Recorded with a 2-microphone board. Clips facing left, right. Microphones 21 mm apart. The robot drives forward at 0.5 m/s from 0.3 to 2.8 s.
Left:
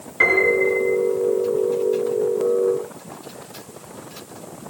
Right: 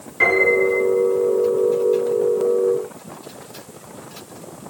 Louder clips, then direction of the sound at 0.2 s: Right 1 dB; 15° left (ahead or behind).